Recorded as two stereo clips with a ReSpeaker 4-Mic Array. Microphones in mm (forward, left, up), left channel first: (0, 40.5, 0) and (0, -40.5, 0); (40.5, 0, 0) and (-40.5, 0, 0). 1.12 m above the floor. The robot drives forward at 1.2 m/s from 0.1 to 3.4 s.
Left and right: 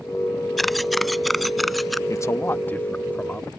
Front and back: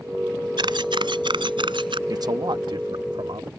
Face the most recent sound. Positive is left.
turn(degrees=165)